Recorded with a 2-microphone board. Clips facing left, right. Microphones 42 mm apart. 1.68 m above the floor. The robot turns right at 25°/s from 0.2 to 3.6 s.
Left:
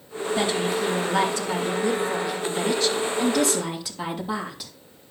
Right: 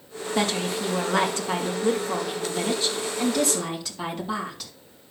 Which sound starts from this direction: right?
A woman speaking, at 0.3 s.